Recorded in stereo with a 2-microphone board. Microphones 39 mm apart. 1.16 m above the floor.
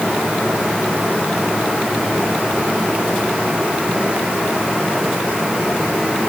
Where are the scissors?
I don't hear scissors.